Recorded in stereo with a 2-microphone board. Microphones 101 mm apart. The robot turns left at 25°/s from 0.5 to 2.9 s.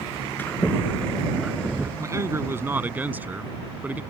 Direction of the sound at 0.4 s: 20° left.